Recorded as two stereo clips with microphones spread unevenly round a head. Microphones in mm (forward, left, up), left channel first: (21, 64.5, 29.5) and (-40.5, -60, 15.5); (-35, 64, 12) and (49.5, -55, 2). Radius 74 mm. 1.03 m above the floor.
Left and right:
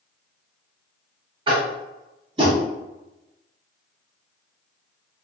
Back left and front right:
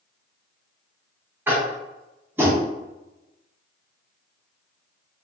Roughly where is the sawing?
I don't hear sawing.